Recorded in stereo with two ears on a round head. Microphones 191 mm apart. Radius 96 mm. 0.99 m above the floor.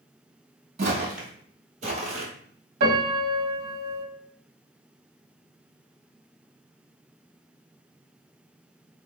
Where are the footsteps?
35° right (ahead or behind), 1.5 m; by 2.3 s 30° right (ahead or behind), 1.1 m.